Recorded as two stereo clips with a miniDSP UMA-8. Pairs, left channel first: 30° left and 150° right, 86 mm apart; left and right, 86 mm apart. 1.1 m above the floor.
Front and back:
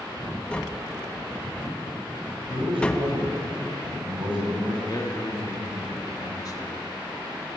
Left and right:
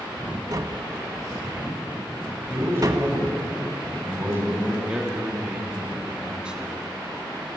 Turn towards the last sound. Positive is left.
turn(degrees=-10)